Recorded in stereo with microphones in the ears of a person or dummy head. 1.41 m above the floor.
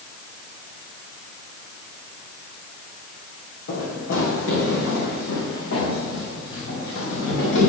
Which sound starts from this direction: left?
Running footsteps, at 3.7 s.